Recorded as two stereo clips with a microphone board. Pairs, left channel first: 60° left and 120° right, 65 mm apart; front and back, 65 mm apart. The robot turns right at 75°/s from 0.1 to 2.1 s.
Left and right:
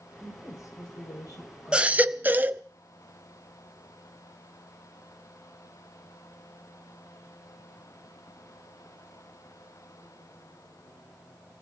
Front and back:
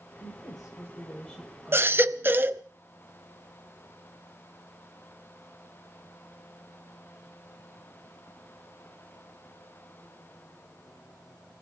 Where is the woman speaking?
5° right, 5.5 m; by 2.4 s 140° left, 5.5 m.